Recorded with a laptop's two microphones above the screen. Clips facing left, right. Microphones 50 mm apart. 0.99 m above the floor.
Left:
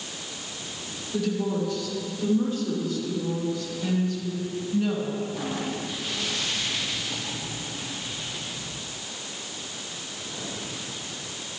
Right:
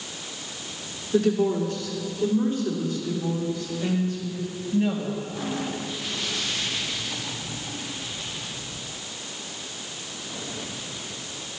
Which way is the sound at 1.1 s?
55° right (ahead or behind).